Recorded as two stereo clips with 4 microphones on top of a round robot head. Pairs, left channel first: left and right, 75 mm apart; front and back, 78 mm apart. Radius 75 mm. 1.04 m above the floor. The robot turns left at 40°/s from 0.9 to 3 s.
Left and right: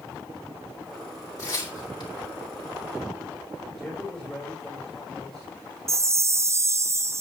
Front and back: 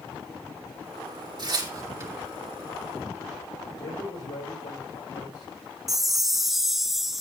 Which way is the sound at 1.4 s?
150° left.